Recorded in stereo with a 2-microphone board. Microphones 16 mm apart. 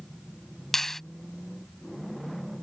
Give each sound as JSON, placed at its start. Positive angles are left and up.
{"t": 0.7, "sound": "a finger snap", "side_deg": 30}